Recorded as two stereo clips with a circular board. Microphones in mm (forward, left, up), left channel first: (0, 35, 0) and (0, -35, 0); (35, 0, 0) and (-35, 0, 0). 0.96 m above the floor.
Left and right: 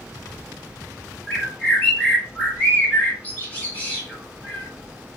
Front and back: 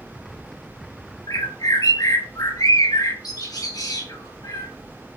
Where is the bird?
25° left, 4 m.